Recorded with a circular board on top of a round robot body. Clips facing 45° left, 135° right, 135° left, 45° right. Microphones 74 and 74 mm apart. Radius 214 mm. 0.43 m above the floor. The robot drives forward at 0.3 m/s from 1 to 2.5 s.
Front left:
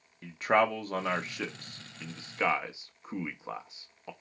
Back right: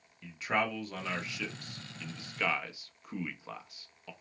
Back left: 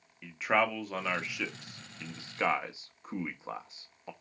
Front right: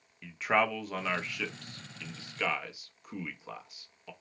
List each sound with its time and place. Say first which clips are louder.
0.2 s a man speaking: front left 7 dB, even; 50° left, 1.0 m; by 4.1 s 95° left, 0.9 m